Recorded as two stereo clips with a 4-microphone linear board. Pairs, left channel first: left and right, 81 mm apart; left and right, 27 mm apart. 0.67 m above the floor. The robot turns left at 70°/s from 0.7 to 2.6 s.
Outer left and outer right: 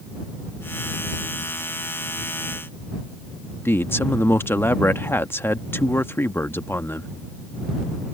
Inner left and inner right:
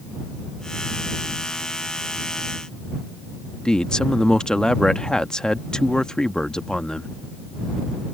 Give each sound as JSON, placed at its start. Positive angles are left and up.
{"t": 3.6, "sound": "a man speaking", "side_deg": 30}